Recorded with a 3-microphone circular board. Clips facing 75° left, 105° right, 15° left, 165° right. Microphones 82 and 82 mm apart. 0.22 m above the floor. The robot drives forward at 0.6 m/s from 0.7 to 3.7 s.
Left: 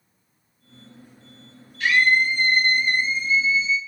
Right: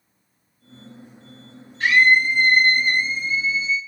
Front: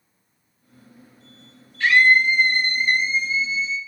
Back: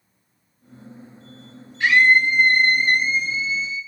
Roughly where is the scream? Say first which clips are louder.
Right 3 dB, even; right.